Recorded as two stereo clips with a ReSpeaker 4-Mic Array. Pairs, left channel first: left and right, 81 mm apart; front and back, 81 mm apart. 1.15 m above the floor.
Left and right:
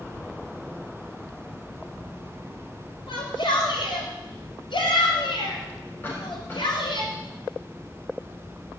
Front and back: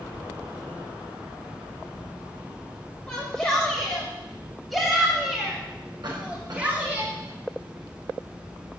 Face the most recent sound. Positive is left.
turn(degrees=155)